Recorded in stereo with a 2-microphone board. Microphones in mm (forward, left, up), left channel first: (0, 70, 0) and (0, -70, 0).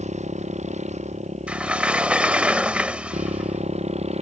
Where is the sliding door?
10° right (ahead or behind).